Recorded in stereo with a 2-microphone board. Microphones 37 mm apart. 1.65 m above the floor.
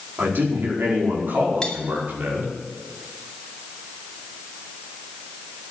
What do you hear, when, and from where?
0.2 s a man speaking: 65° right (ahead or behind), 5 m; by 2.5 s 75° right (ahead or behind), 5.5 m
1.6 s cutlery clinking: 15° left (ahead or behind), 1.7 m